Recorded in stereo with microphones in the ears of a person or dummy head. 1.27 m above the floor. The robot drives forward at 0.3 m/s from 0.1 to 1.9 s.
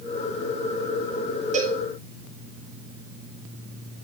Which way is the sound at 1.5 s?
40° right (ahead or behind).